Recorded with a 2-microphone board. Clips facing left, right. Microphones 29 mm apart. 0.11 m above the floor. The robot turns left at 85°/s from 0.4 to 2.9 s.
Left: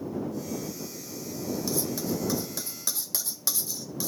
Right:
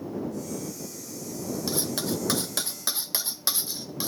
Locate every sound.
1.7 s cutlery clinking: 35° right (ahead or behind)